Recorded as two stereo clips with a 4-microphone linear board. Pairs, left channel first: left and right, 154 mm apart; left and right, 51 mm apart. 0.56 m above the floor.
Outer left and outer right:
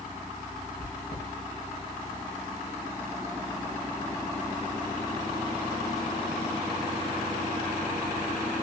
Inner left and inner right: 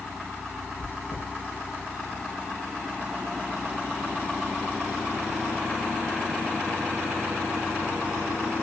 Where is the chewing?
55° left (ahead or behind), 1.4 m.